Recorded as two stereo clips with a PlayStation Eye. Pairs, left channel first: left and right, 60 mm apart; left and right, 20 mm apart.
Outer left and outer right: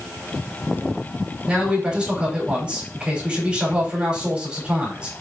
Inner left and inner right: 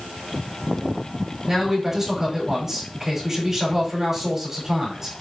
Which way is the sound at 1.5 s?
20° right (ahead or behind).